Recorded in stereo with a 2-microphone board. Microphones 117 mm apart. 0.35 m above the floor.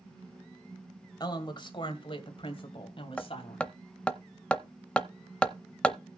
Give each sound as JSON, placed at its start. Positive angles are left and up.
{"t": 1.2, "sound": "a woman speaking", "side_deg": 40, "distance_m": 2.0}
{"t": 3.2, "sound": "hammering", "side_deg": 10, "distance_m": 0.6}